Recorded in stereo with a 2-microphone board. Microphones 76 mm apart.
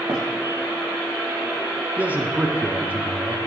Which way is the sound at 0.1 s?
65° right (ahead or behind).